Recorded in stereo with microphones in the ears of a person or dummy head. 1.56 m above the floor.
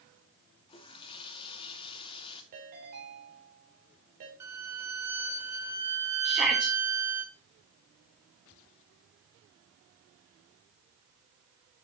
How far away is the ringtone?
About 3.5 m.